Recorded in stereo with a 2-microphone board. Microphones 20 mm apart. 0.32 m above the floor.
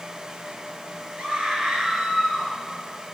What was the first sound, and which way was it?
A scream, 65° right (ahead or behind).